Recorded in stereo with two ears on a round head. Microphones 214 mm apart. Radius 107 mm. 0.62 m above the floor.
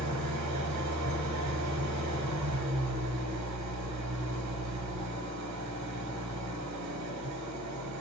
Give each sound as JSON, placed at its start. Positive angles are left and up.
{"t": 0.0, "sound": "an engine running", "side_deg": -80, "distance_m": 1.5}